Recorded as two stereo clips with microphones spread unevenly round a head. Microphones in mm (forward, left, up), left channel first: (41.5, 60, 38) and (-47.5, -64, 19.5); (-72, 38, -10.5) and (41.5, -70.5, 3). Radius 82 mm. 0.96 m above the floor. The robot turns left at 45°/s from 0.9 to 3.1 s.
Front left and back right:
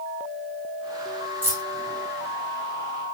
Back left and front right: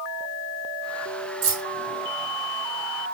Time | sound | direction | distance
1.4 | keys jangling | 45° right | 1.9 m